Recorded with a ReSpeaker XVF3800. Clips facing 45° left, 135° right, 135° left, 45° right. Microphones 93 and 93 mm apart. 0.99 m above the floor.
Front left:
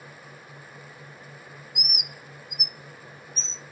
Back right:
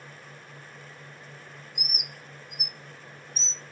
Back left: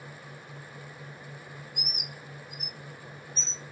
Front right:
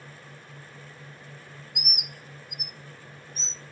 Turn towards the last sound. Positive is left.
turn(degrees=25)